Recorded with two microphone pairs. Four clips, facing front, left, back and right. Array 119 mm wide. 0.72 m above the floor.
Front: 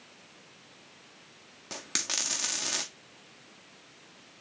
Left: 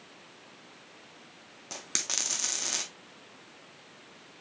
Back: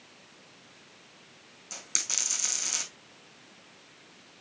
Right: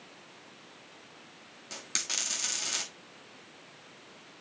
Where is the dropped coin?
30° left, 1.5 m.